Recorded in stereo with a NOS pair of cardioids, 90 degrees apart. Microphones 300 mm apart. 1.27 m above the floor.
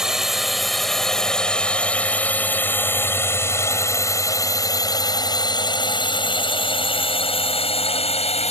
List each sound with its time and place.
0.0 s a drone: straight ahead; by 8.5 s 20° left